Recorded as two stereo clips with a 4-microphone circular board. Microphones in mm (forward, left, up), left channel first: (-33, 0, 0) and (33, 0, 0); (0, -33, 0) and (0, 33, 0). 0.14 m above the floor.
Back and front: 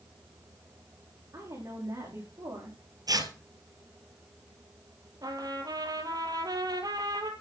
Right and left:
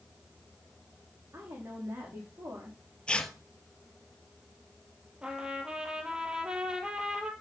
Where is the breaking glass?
I don't hear breaking glass.